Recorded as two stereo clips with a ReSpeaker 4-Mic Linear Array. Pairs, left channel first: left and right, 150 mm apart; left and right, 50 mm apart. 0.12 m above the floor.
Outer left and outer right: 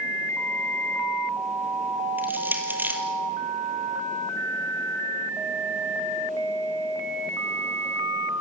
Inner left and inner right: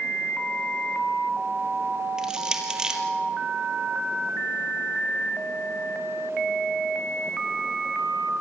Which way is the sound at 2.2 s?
15° right (ahead or behind).